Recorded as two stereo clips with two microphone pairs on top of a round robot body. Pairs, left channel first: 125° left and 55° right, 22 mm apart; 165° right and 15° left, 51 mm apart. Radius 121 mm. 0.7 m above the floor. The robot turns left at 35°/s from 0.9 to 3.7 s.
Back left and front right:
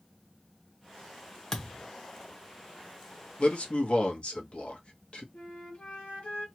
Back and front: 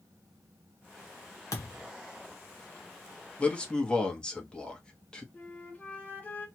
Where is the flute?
135° left, 2 m.